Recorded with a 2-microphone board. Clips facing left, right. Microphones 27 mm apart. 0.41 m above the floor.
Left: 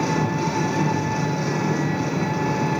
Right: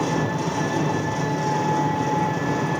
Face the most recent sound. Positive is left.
turn(degrees=35)  # may be behind; listen again after turning